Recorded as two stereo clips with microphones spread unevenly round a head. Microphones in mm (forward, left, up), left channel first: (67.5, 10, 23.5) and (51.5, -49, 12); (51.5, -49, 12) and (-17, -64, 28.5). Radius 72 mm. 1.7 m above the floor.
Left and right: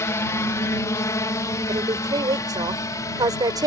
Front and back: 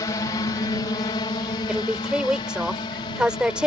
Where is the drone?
45° left.